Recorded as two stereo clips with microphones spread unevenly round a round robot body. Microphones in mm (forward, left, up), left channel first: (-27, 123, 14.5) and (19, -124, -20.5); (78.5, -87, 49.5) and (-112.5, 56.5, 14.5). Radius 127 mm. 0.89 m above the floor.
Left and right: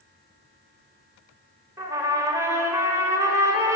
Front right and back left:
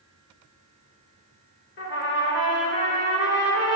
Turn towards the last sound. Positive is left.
turn(degrees=5)